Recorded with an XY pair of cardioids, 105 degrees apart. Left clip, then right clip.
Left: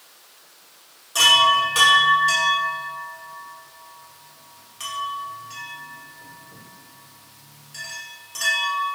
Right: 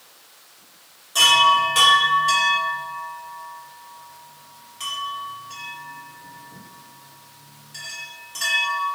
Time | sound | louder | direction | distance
1.1 | a chime | even | 15° left | 1.5 m